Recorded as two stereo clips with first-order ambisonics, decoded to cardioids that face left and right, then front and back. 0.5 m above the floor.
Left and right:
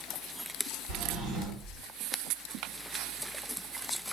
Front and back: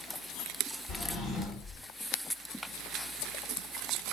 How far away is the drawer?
About 1.0 m.